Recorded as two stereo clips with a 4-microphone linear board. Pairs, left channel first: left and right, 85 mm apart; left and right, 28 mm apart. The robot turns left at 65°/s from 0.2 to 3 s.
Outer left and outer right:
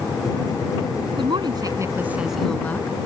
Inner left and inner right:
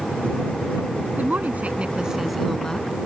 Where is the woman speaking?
100° right; by 3.0 s 145° left.